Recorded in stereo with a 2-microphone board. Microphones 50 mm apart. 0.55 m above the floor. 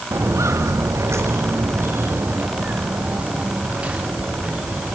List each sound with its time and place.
0.1 s footsteps: 75° right (ahead or behind), 3 m; by 5.0 s 25° right (ahead or behind), 7 m